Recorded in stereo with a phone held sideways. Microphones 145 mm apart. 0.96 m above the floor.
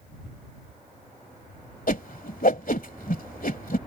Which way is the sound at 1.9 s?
70° left (ahead or behind).